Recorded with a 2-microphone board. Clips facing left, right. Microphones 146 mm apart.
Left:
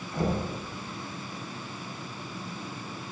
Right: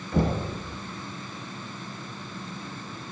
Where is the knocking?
65° right (ahead or behind), 2.0 m.